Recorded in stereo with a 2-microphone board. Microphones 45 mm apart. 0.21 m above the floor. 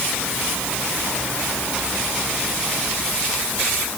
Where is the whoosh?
I don't hear a whoosh.